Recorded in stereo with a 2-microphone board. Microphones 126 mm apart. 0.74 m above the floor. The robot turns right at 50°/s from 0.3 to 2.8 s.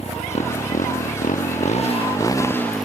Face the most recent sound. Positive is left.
turn(degrees=180)